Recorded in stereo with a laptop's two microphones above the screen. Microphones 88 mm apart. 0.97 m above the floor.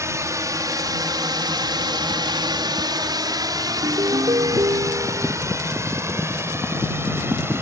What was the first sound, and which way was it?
A drone, 35° right (ahead or behind).